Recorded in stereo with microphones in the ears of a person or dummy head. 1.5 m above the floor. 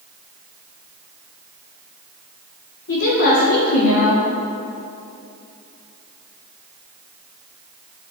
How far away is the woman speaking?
About 2 m.